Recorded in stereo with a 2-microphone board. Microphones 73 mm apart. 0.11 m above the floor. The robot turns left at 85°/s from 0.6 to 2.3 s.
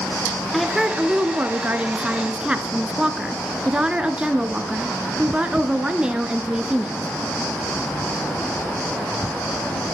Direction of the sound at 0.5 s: Centre (ahead or behind).